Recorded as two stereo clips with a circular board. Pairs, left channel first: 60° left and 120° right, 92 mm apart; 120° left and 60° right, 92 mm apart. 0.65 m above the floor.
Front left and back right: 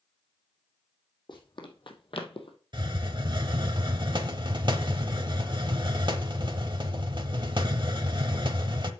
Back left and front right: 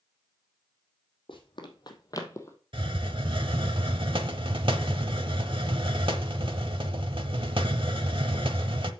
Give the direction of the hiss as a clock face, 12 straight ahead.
3 o'clock.